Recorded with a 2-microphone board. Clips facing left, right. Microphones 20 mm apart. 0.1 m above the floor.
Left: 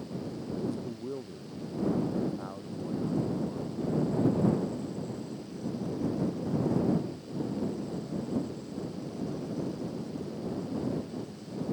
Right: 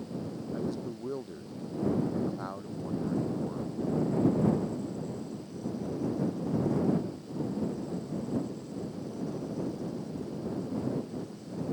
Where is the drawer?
I don't hear a drawer.